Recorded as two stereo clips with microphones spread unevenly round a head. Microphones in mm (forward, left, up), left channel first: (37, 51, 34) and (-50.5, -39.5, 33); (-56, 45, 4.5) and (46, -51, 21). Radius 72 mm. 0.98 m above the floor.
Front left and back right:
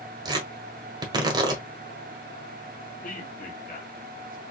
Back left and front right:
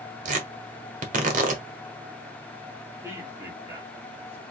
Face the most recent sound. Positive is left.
turn(degrees=30)